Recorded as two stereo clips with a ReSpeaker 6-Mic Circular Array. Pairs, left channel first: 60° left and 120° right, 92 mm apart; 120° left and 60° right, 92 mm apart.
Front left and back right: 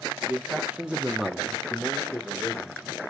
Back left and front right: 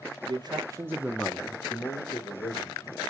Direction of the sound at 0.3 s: 50° right.